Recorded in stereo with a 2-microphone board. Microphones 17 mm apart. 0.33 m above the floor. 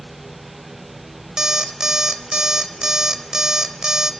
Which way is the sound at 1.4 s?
40° right (ahead or behind).